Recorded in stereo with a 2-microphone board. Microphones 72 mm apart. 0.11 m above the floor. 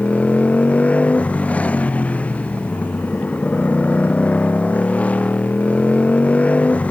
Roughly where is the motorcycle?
Centre.